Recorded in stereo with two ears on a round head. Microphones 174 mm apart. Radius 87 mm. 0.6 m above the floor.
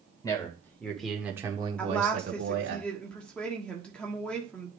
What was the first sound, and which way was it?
A man speaking, 20° left (ahead or behind).